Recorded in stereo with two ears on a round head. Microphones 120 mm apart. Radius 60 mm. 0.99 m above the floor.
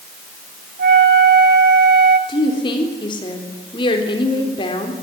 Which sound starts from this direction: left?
A woman speaking, at 2.3 s.